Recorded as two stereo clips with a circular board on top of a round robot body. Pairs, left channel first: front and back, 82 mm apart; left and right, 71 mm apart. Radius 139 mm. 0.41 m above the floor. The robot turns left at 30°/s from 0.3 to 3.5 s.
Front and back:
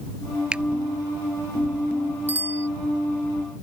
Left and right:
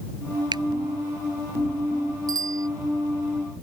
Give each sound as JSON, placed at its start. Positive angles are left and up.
{"t": 0.5, "sound": "a finger snap", "azimuth_deg": -100}
{"t": 2.3, "sound": "a bicycle bell", "azimuth_deg": -115}